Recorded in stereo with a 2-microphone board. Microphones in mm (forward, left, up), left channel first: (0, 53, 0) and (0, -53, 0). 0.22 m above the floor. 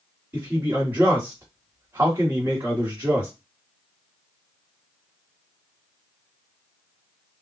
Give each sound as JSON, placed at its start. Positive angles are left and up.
{"t": 0.3, "sound": "a man speaking", "side_deg": -20, "distance_m": 1.8}